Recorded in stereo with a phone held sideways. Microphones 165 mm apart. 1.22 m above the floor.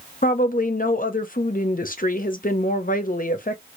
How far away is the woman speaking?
About 0.7 m.